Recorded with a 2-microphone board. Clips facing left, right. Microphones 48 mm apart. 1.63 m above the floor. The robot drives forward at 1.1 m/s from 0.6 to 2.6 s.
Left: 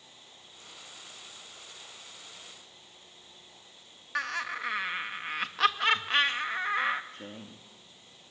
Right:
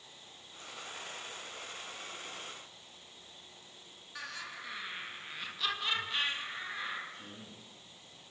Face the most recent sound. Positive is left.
turn(degrees=80)